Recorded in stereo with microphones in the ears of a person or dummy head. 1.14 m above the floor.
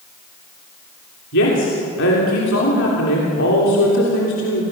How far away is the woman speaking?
About 3 m.